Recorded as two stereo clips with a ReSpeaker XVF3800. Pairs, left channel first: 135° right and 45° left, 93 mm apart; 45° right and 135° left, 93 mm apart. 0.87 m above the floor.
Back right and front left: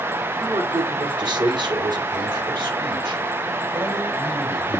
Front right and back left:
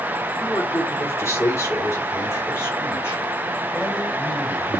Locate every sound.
0.4 s a man speaking: 10° left, 2 m; by 4.8 s 15° left, 4.5 m